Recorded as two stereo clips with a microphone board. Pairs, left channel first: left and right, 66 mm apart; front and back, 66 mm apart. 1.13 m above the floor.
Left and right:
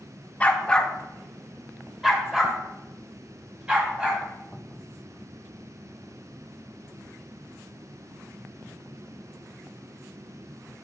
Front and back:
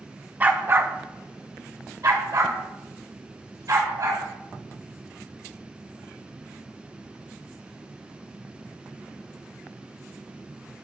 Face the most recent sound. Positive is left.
turn(degrees=-165)